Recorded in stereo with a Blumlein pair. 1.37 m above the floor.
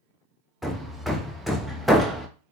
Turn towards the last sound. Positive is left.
turn(degrees=0)